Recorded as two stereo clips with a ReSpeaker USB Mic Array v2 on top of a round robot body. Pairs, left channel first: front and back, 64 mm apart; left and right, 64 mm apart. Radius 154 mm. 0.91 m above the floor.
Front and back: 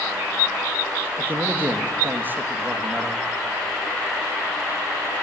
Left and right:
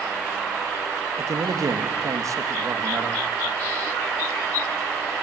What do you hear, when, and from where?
1.2 s a man speaking: 120° right, 1.3 m